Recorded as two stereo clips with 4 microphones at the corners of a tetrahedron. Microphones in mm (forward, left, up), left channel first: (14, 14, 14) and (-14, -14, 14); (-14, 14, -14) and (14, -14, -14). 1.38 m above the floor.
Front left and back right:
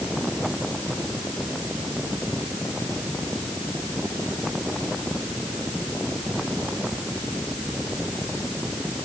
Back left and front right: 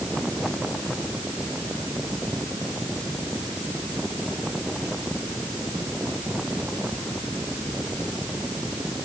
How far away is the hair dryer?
I don't hear a hair dryer.